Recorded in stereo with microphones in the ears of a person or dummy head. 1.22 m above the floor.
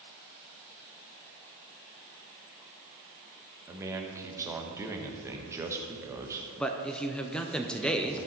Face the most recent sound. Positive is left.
turn(degrees=5)  # may be behind; listen again after turning